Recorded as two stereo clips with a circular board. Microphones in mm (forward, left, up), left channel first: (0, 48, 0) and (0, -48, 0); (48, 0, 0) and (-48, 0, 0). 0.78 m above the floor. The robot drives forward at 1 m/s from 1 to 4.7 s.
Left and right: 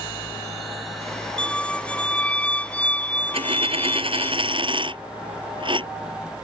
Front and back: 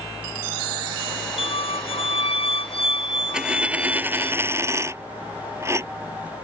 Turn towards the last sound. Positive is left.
turn(degrees=-120)